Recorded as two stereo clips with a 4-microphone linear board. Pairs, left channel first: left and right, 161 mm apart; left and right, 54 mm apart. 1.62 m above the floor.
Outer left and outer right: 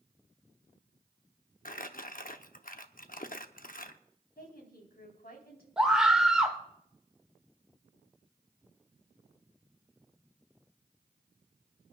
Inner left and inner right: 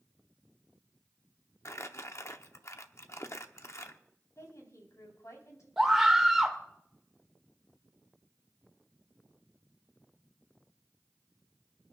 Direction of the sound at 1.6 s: 60° left (ahead or behind).